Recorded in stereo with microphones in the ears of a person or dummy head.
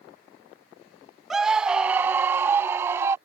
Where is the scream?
5° right (ahead or behind); by 3.1 s 20° right (ahead or behind).